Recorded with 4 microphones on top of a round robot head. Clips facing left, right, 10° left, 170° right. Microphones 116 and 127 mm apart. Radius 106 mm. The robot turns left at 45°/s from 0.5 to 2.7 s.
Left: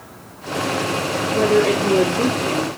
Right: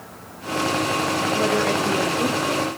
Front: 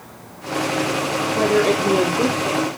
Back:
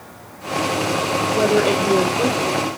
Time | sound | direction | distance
1.3 | a woman speaking | 115° left | 2.5 m